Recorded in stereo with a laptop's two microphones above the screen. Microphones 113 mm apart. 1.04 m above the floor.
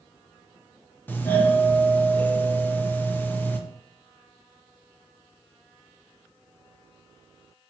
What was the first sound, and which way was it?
A doorbell, 15° left (ahead or behind).